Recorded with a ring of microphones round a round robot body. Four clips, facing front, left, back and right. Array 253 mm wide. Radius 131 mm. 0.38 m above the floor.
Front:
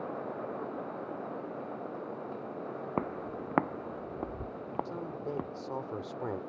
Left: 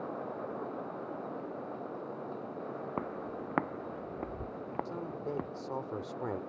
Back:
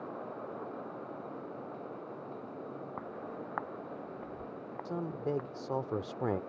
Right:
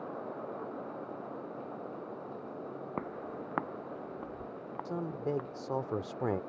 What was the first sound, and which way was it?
Footsteps, 10° right.